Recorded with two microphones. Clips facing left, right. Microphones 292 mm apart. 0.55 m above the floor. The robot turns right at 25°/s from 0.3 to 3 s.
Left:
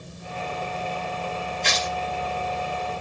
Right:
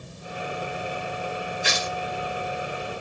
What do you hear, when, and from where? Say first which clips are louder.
1.6 s tearing paper: left 1 dB; 10° right (ahead or behind), 1.1 m; by 1.9 s 15° right (ahead or behind), 1.1 m